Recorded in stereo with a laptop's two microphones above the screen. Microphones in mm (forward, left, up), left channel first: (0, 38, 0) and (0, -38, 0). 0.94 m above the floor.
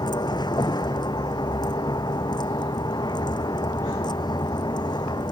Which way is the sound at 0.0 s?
65° left (ahead or behind).